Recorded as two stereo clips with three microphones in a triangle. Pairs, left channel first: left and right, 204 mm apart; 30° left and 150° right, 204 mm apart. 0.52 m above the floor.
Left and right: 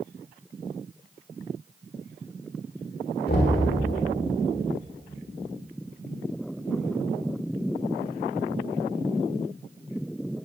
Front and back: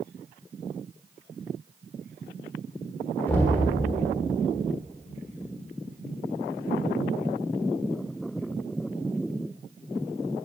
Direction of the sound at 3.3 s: 110° left.